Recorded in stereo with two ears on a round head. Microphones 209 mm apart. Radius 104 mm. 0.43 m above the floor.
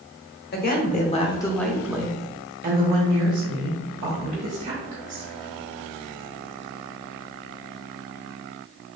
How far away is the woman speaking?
About 1.0 m.